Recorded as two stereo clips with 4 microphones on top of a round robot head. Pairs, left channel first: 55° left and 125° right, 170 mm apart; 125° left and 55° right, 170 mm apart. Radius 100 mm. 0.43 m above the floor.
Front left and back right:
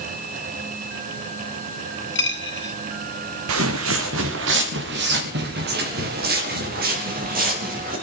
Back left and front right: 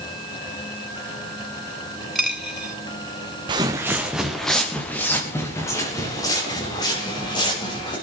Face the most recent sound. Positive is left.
turn(degrees=-170)